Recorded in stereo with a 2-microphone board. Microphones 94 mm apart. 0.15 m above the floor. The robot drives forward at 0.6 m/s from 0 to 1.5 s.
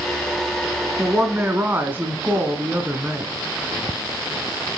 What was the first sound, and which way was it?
A woman speaking, 20° right (ahead or behind).